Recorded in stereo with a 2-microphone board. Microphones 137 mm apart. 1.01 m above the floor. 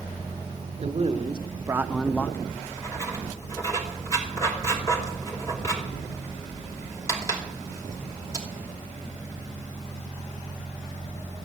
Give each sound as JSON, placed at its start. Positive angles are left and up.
{"t": 0.8, "sound": "a man speaking", "side_deg": -50, "distance_m": 0.9}
{"t": 2.5, "sound": "writing", "side_deg": 20, "distance_m": 2.5}